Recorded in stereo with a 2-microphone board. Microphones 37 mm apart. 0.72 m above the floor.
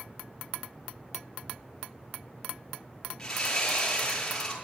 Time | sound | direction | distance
1.4 | ticking | 75° right (ahead or behind) | 4 m
3.2 | sawing | 15° left (ahead or behind) | 7 m